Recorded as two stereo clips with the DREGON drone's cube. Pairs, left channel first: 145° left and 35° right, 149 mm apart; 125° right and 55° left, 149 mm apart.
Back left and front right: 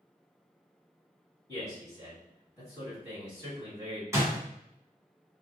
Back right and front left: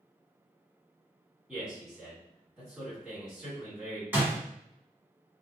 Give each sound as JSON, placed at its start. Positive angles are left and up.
{"t": 1.5, "sound": "a man speaking", "azimuth_deg": 140, "distance_m": 1.7}
{"t": 4.1, "sound": "a door slam", "azimuth_deg": 0, "distance_m": 1.0}